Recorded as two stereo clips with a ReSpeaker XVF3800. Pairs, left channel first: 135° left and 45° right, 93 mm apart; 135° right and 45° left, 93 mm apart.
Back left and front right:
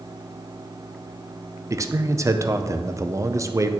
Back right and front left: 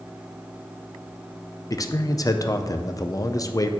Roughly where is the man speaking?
Right.